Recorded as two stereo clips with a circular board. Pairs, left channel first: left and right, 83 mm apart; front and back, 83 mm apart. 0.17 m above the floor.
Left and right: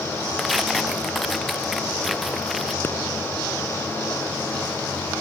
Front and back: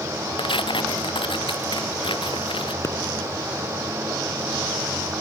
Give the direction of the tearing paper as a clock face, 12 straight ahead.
12 o'clock.